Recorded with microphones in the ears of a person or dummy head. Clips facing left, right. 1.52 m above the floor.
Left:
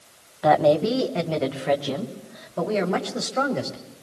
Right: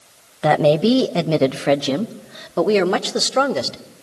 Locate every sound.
0.4 s a woman speaking: 30° right (ahead or behind), 1.0 m; by 3.8 s 80° right, 2.5 m